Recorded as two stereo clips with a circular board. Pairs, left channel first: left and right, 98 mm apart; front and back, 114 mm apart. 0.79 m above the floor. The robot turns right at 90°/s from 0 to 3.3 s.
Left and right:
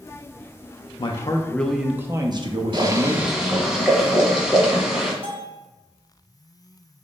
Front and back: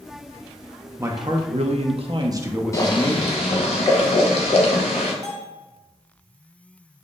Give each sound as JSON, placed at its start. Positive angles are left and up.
{"t": 1.0, "sound": "a man speaking", "azimuth_deg": 115, "distance_m": 0.6}
{"t": 2.7, "sound": "boiling", "azimuth_deg": -60, "distance_m": 1.1}
{"t": 5.2, "sound": "a bell", "azimuth_deg": -115, "distance_m": 1.0}